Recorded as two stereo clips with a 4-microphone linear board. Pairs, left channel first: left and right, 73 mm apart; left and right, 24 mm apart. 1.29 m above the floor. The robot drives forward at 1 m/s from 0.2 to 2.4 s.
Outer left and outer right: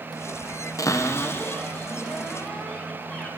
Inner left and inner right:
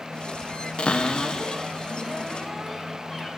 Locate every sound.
0.8 s a cupboard door: 45° left (ahead or behind), 0.7 m; by 3.3 s 15° left (ahead or behind), 2 m